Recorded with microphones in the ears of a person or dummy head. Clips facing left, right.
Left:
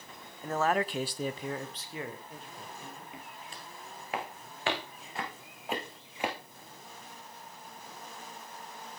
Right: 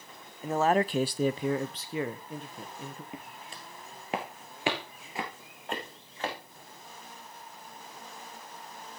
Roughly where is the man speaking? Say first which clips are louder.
Right 4 dB; centre.